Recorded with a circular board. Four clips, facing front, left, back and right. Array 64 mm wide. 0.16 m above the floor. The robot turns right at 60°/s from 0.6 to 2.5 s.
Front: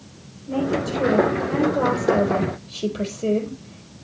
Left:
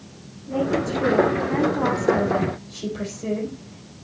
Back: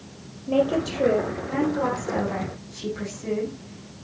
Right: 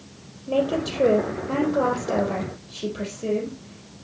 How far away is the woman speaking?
About 4 m.